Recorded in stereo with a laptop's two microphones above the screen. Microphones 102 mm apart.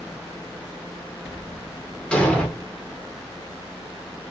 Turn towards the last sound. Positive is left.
turn(degrees=10)  # may be behind; listen again after turning